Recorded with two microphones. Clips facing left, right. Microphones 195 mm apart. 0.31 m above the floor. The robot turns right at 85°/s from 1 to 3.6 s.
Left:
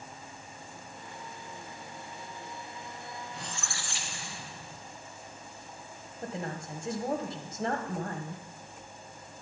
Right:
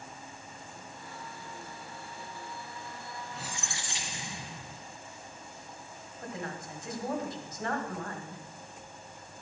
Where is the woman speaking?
30° left (ahead or behind), 1.9 m.